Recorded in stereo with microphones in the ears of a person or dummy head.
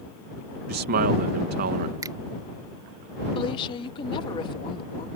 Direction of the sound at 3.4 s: 30° left (ahead or behind).